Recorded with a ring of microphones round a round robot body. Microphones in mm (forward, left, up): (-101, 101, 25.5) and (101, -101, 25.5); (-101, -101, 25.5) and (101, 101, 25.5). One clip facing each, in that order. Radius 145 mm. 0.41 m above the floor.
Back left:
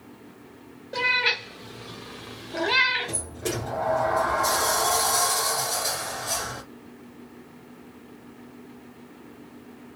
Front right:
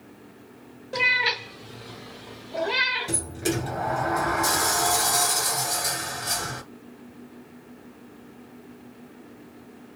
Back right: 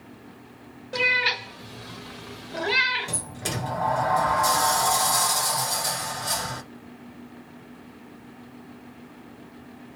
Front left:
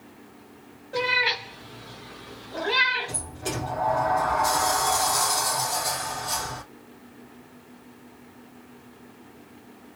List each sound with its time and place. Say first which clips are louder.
0.9 s a cat meowing: even, front left 2 dB; 120° right, 1.3 m; by 3.1 s 170° left, 1.1 m
3.1 s a sliding door: front right 4 dB, even; 115° right, 1.5 m